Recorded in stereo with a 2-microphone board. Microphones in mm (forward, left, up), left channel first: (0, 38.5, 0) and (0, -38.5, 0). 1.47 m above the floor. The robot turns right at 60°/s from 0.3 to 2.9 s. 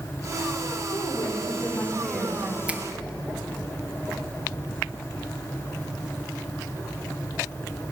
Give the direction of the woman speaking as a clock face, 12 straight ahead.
9 o'clock.